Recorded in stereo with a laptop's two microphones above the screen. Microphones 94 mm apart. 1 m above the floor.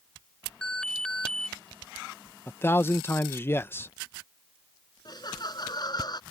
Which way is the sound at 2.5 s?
25° left (ahead or behind).